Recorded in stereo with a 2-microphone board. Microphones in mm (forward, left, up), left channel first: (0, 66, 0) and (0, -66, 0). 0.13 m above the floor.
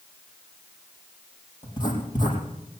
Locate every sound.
1.6 s writing: 35° left (ahead or behind), 4.5 m